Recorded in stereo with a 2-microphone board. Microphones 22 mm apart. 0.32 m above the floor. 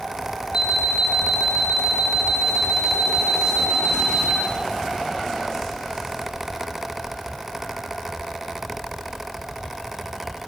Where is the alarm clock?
20° right (ahead or behind), 2.0 m.